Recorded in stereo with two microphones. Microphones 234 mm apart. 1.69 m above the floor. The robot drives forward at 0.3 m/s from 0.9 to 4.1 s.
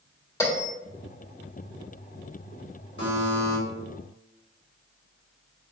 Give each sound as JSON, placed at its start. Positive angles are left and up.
{"t": 0.4, "sound": "a bell", "side_deg": 15, "distance_m": 1.3}
{"t": 3.0, "sound": "a buzzer", "side_deg": 50, "distance_m": 1.5}